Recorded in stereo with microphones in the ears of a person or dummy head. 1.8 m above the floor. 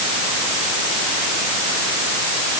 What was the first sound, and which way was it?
Only background noise.